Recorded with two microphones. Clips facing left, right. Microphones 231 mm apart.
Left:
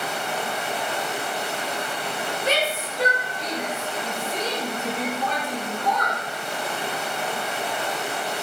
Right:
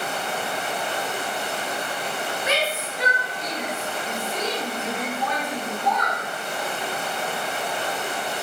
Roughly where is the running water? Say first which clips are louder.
Even; right.